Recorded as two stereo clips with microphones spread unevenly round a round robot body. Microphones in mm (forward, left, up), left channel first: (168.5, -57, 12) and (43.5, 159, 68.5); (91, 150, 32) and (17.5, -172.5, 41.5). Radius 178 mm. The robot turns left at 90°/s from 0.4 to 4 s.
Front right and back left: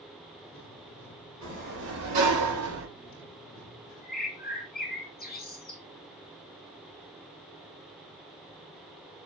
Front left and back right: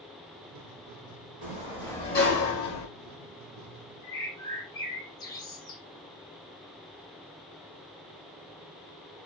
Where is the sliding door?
155° right, 0.7 m; by 2.9 s 75° left, 0.7 m.